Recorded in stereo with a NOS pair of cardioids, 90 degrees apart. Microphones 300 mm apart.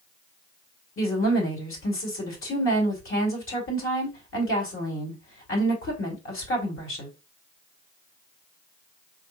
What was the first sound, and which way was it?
A woman speaking, 45° left.